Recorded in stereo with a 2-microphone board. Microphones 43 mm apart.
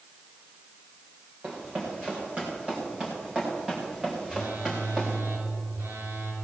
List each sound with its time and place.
1.4 s running footsteps: 35° right (ahead or behind), 6 m; by 5.1 s 10° right (ahead or behind), 3.5 m
4.3 s a phone buzzing: 85° right, 4 m